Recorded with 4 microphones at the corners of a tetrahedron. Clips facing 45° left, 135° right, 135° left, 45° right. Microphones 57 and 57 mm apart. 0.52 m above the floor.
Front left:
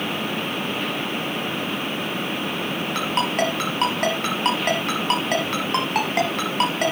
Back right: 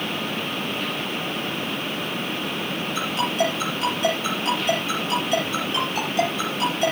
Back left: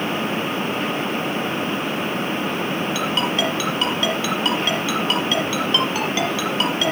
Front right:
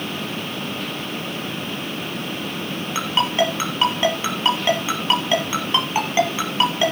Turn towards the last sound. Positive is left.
turn(degrees=20)